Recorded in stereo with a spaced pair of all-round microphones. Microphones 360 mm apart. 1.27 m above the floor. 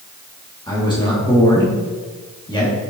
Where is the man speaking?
15° left (ahead or behind), 1.8 m.